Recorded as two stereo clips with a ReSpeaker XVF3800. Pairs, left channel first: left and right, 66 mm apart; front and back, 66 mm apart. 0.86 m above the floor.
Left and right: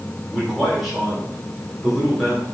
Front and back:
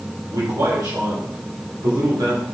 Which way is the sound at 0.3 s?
Straight behind.